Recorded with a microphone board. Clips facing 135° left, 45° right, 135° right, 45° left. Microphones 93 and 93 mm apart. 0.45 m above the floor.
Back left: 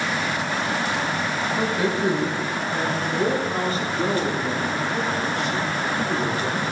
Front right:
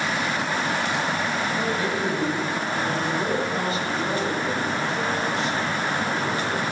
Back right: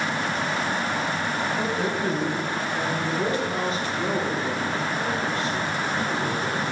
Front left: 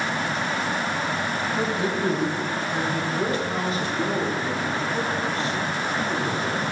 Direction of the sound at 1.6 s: 60° left.